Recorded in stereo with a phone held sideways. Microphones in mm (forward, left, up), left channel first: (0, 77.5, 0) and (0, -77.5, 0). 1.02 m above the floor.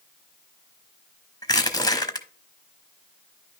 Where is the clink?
I don't hear a clink.